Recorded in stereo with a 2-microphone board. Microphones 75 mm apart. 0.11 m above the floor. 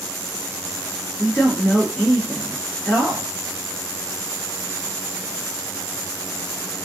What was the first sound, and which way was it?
A man speaking, 25° left (ahead or behind).